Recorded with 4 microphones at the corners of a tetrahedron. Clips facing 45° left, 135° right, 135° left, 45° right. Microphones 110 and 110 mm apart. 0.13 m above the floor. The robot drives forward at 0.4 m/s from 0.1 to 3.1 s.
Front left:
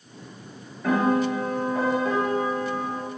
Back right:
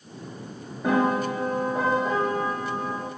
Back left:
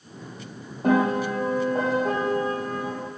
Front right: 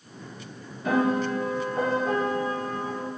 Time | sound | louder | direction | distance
0.8 | a piano | front left 1 dB, back left 2 dB | 155° left | 3.5 m